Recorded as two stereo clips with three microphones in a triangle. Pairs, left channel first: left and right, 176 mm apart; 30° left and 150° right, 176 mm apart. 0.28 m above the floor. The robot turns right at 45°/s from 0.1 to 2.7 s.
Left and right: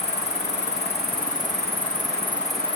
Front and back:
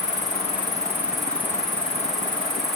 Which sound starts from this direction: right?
An insect, at 0.0 s.